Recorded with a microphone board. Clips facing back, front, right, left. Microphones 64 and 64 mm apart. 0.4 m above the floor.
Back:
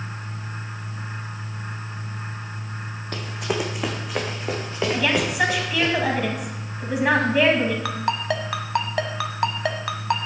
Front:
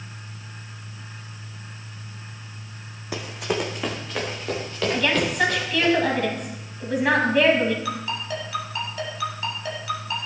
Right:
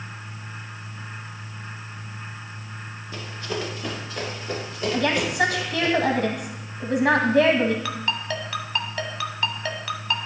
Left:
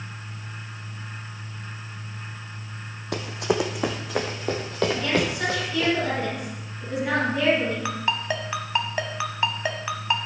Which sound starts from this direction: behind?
A ringtone, at 7.8 s.